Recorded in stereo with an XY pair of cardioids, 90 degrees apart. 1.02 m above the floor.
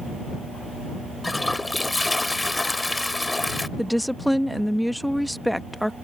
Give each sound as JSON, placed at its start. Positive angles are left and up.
{"t": 1.2, "sound": "a toilet flushing", "azimuth_deg": 20}
{"t": 3.8, "sound": "a woman speaking", "azimuth_deg": 5}